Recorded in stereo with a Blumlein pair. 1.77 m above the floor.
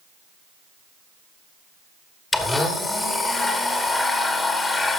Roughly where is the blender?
Ahead.